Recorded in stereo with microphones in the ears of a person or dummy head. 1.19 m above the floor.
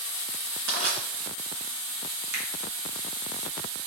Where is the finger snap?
80° right, 2.5 m.